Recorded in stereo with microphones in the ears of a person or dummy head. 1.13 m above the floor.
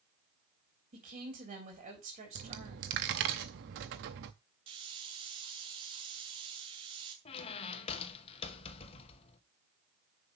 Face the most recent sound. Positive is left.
turn(degrees=35)  # may be behind; listen again after turning